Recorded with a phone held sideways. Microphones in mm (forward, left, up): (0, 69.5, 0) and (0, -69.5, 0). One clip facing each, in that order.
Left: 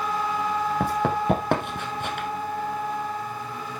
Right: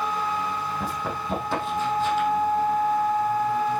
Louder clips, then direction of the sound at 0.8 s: Left 6 dB; 70° left (ahead or behind).